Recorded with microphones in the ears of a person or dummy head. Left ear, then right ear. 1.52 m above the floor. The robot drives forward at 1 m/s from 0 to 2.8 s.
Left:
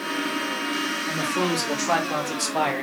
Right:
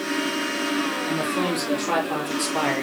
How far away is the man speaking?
About 3.5 m.